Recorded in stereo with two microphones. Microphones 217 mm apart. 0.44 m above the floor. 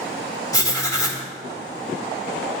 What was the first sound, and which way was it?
Writing, 15° left (ahead or behind).